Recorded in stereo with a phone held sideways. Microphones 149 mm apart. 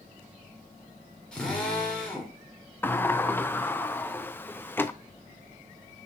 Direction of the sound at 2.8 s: 15° left (ahead or behind).